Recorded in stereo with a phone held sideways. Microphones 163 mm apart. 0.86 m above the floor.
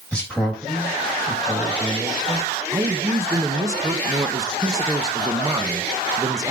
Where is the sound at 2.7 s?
20° right (ahead or behind), 0.8 m.